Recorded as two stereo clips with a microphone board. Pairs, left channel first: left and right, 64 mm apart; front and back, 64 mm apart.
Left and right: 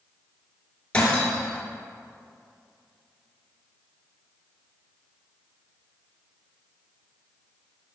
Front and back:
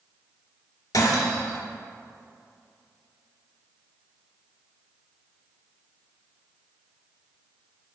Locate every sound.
0.9 s breaking glass: 20° left, 1.4 m